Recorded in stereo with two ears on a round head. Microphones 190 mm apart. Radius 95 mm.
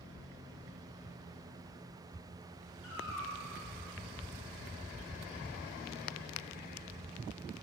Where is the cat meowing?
70° left (ahead or behind), 2.5 m.